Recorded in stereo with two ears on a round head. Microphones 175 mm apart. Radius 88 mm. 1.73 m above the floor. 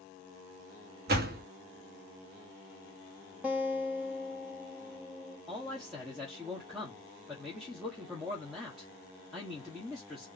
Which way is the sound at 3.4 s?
10° right (ahead or behind).